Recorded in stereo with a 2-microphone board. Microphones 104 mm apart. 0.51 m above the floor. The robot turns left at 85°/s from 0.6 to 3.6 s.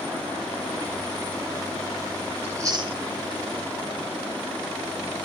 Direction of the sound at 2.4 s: 15° right (ahead or behind).